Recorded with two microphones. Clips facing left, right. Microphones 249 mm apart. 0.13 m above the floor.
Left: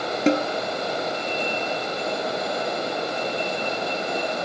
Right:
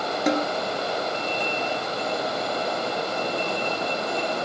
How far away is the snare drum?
About 0.8 m.